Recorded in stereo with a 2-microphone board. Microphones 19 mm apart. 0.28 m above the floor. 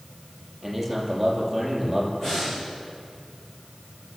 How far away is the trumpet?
No trumpet in this recording.